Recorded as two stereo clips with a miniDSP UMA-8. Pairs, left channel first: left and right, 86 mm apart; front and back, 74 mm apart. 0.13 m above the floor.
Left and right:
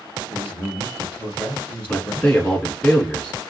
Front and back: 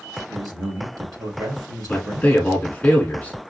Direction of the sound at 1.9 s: 45° left.